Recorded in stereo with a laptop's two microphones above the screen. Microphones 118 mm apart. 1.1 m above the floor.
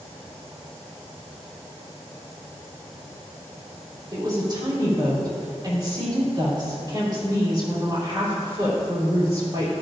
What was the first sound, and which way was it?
A woman speaking, 40° right (ahead or behind).